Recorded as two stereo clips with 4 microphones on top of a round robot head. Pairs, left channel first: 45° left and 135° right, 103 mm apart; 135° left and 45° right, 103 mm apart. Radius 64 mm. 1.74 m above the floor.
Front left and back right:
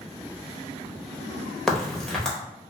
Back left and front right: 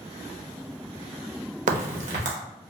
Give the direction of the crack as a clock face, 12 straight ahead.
1 o'clock.